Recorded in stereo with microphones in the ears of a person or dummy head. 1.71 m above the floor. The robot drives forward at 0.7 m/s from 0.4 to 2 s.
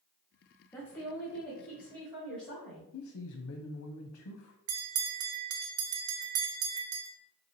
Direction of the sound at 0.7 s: 10° left (ahead or behind).